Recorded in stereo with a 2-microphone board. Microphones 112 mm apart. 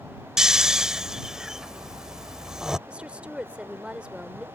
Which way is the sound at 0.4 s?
5° right (ahead or behind).